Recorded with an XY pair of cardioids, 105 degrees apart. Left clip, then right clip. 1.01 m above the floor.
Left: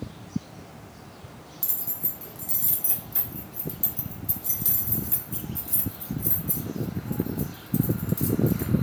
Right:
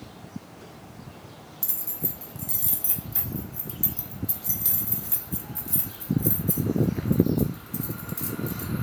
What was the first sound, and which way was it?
Keys jangling, 10° right.